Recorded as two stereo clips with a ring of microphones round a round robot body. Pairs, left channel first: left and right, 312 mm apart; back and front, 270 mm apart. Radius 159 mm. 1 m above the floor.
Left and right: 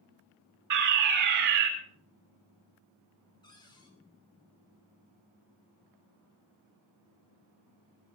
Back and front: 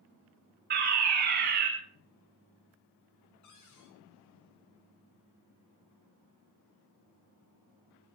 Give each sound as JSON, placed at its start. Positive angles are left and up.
{"t": 0.7, "sound": "a fire alarm", "azimuth_deg": -60, "distance_m": 6.0}
{"t": 3.4, "sound": "a cupboard door", "azimuth_deg": 165, "distance_m": 5.0}